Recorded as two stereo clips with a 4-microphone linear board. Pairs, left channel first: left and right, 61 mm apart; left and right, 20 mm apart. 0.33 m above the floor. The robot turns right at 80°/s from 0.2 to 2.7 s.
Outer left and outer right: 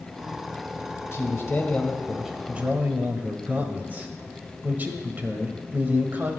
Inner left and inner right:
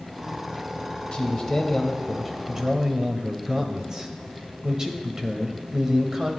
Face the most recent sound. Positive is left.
turn(degrees=-140)